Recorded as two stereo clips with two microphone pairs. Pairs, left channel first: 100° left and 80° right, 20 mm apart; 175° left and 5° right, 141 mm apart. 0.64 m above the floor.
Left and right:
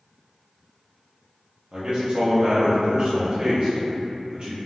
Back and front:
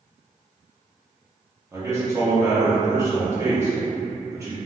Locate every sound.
1.7 s a man speaking: 70° right, 0.7 m